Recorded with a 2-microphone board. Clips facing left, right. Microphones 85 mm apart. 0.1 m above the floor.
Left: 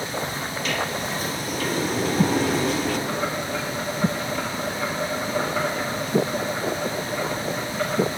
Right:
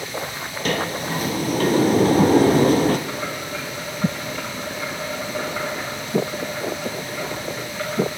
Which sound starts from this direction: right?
A sliding door, at 0.7 s.